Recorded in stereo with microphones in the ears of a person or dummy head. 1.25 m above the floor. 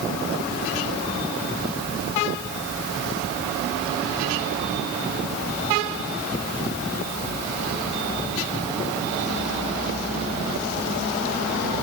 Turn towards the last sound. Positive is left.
No sound to turn to.